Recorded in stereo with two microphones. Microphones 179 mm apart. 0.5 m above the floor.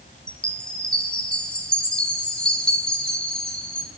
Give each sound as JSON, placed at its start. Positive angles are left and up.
{"t": 0.3, "sound": "a chime", "side_deg": 5, "distance_m": 1.4}